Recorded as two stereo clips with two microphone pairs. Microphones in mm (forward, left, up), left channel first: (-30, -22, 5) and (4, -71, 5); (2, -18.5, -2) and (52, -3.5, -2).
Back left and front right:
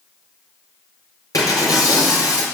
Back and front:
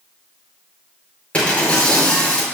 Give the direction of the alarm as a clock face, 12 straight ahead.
No alarm in this recording.